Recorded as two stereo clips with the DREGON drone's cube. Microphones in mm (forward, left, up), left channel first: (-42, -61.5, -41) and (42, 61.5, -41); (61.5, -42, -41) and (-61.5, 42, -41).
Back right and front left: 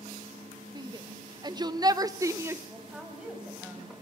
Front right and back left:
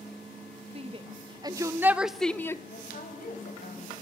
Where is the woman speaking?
30° right, 5 m.